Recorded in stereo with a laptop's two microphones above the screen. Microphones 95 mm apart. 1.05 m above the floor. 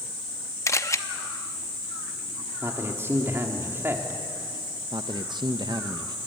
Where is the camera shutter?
30° left (ahead or behind), 0.9 m.